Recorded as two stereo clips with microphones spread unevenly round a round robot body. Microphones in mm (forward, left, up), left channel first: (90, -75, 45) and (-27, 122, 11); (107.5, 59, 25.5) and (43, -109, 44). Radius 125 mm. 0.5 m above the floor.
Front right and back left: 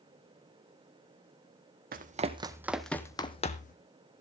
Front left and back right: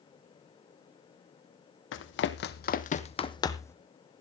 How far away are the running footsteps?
About 1.2 m.